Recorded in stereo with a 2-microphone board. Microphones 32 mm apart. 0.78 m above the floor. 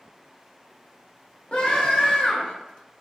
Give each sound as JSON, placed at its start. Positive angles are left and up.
{"t": 1.5, "sound": "a scream", "side_deg": 35, "distance_m": 0.9}